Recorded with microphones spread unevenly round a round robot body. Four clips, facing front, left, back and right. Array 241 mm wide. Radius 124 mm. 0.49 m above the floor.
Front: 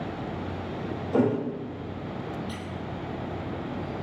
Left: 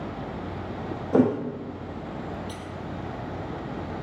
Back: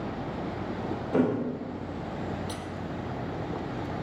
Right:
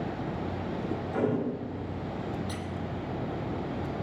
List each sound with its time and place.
1.1 s a thud: 85° left, 6 m
2.5 s a squeak: 130° right, 2.0 m